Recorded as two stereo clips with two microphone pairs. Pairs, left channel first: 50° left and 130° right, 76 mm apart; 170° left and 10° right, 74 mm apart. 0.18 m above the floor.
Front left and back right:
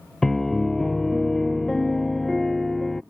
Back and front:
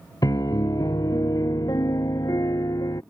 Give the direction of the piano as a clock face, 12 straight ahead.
7 o'clock.